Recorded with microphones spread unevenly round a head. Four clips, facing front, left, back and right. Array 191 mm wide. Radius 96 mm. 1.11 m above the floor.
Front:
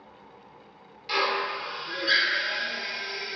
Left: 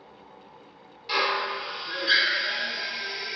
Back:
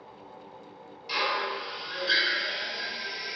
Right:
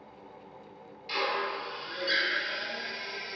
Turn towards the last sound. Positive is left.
turn(degrees=40)